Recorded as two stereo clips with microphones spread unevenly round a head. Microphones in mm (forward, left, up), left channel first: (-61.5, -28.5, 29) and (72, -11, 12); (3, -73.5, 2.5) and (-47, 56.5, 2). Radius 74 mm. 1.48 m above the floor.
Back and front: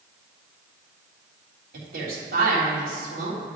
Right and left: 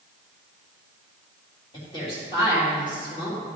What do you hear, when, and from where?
1.7 s a woman speaking: 5° right, 3 m